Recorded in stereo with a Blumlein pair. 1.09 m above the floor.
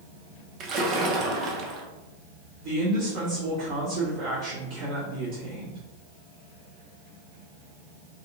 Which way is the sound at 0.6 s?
30° right.